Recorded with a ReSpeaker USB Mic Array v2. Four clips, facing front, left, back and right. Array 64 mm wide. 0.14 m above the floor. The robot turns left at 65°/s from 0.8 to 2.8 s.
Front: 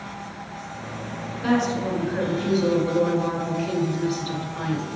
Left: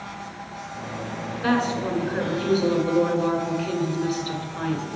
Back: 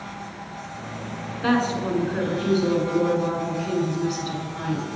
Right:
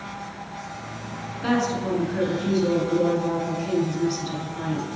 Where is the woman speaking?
170° left, 1.3 m; by 4.9 s 80° left, 1.3 m.